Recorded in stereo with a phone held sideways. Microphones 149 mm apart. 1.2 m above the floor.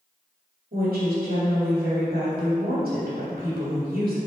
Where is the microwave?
I don't hear a microwave.